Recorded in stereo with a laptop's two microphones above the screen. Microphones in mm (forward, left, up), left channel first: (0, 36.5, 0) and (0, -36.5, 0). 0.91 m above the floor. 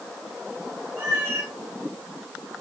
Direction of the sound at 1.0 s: 35° right (ahead or behind).